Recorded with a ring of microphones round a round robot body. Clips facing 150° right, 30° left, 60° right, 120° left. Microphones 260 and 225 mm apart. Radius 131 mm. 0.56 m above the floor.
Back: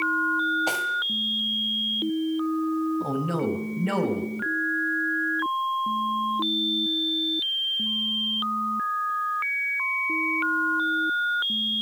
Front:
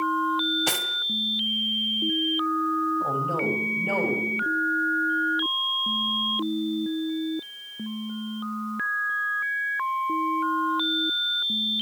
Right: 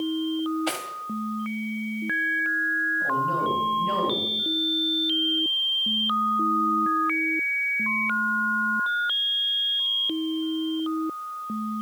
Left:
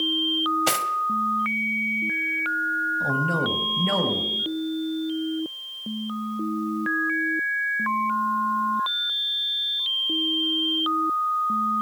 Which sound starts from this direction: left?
Cutlery clinking, at 0.7 s.